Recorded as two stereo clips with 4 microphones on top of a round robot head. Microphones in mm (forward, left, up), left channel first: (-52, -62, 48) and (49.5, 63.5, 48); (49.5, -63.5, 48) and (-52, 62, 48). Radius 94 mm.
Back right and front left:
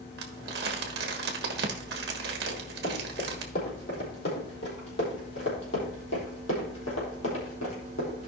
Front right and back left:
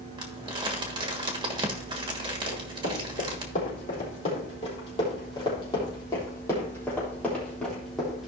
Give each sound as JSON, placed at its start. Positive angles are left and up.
{"t": 0.2, "sound": "crumpling", "azimuth_deg": 70, "distance_m": 1.2}
{"t": 2.5, "sound": "running footsteps", "azimuth_deg": -85, "distance_m": 4.0}